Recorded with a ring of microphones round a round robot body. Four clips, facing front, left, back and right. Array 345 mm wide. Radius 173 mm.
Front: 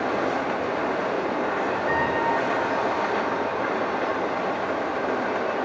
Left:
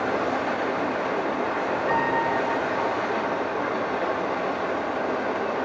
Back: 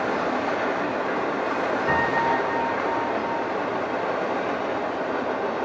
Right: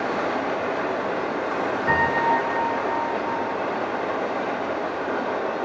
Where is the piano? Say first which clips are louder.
Right 4 dB, back 1 dB; 120° right, 2.5 m.